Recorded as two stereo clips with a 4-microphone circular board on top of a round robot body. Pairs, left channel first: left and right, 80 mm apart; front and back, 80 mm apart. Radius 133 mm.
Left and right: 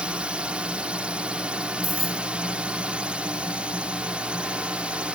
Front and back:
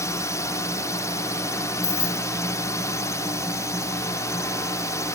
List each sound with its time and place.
0.0 s a drone: 20° right
1.8 s keys jangling: straight ahead